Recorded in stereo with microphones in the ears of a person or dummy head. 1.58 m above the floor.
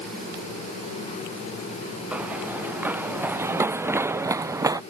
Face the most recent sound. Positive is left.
turn(degrees=-15)  # may be behind; listen again after turning